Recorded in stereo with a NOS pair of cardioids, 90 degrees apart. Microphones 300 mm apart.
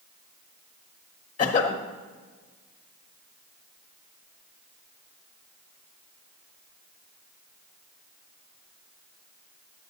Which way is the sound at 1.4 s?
25° left.